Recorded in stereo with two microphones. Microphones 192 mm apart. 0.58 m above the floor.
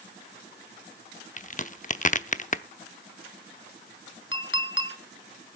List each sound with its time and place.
1.4 s a crack: 40° left (ahead or behind), 0.6 m
4.3 s a clink: 75° left (ahead or behind), 1.7 m